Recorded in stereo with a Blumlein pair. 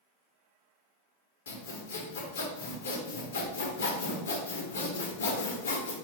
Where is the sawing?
65° left, 1.1 m.